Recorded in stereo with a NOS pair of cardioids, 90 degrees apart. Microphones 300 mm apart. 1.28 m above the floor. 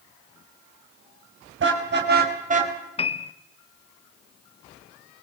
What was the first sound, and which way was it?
A car horn, 40° right.